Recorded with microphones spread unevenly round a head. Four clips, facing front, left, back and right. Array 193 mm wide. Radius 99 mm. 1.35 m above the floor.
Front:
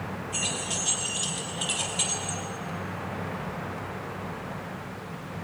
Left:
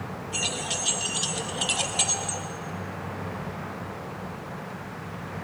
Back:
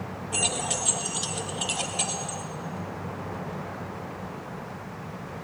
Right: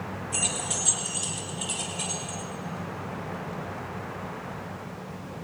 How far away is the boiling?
No boiling in this recording.